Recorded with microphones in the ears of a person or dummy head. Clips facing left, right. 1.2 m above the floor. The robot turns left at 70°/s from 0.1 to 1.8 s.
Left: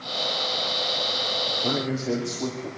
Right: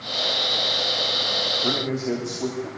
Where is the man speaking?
Centre (ahead or behind), 3 m; by 2.7 s 15° left (ahead or behind), 3 m.